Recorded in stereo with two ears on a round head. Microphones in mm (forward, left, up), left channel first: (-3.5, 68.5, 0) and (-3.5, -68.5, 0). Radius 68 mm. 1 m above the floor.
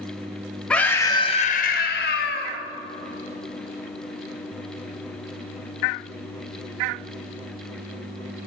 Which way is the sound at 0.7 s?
5° left (ahead or behind).